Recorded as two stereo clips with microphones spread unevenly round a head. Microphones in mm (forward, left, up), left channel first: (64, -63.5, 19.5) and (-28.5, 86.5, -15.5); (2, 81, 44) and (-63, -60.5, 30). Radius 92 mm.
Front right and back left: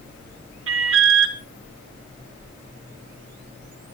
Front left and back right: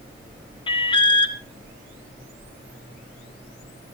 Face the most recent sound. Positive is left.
turn(degrees=125)